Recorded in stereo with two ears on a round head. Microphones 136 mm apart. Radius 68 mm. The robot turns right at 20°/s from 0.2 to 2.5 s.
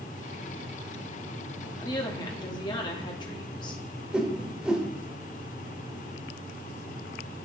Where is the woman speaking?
25° left (ahead or behind), 1.3 m; by 3.8 s 30° left (ahead or behind), 1.3 m.